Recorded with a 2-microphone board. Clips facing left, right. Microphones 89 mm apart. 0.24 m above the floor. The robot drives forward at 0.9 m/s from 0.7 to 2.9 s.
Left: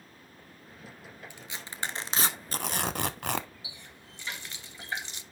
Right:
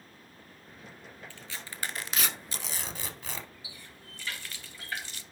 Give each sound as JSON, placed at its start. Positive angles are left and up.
{"t": 1.3, "sound": "tearing paper", "side_deg": 15, "distance_m": 1.5}
{"t": 3.6, "sound": "a running tap", "side_deg": 20, "distance_m": 0.6}